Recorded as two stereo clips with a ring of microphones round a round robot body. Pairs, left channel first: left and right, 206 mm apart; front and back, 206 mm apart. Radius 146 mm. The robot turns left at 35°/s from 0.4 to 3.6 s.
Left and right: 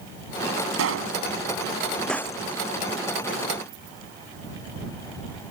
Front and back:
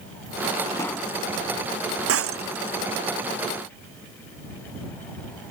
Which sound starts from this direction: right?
A pop, at 0.7 s.